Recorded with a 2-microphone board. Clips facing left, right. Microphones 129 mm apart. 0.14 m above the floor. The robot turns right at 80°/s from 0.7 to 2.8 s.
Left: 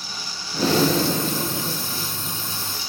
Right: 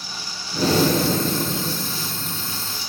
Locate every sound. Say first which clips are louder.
0.5 s breathing: right 1 dB; 130° right, 1.8 m; by 2.6 s 25° left, 1.8 m